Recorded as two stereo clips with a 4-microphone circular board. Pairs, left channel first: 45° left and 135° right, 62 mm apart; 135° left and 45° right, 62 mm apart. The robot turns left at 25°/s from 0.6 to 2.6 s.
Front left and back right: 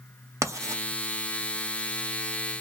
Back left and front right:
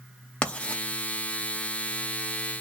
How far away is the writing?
About 0.5 m.